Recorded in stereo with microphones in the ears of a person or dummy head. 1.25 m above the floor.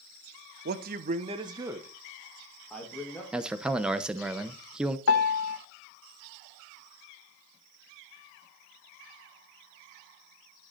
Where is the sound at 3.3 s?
Centre (ahead or behind), 0.8 m.